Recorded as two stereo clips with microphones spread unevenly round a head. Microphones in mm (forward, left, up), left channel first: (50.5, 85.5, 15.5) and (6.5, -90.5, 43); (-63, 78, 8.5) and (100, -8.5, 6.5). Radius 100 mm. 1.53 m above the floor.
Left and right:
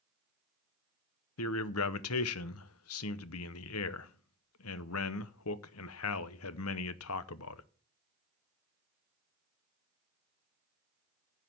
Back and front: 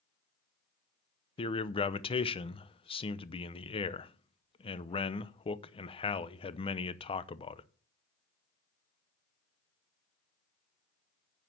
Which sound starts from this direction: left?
A man speaking, at 1.4 s.